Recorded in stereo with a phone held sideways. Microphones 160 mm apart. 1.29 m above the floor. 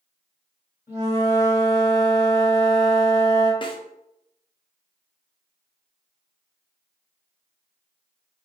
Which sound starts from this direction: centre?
A flute, at 0.9 s.